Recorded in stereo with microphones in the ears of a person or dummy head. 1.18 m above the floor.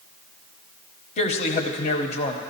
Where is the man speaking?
35° left (ahead or behind), 0.8 m.